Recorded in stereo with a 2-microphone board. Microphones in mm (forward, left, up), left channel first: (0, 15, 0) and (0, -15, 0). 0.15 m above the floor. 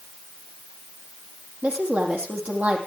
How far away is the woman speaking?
About 5.5 m.